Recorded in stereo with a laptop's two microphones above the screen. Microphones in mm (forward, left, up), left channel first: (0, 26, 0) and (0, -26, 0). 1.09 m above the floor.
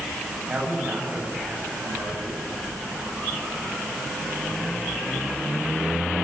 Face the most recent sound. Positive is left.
turn(degrees=-25)  # may be behind; listen again after turning